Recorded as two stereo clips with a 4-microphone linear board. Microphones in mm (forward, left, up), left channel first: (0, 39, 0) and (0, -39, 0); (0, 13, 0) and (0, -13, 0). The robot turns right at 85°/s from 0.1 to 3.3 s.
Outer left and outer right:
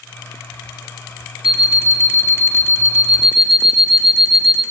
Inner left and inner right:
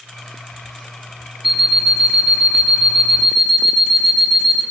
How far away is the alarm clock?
About 0.6 m.